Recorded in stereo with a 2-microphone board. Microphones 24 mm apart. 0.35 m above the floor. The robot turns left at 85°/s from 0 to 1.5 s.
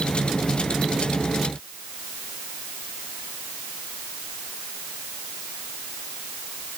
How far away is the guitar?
No guitar in this recording.